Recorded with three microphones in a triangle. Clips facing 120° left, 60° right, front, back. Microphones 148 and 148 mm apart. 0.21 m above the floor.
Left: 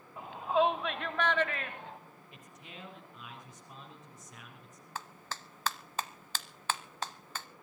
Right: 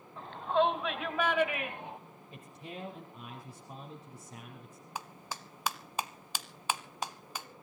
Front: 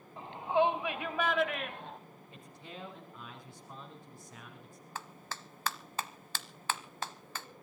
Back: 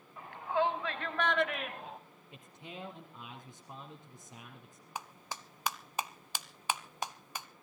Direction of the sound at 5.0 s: 120° right.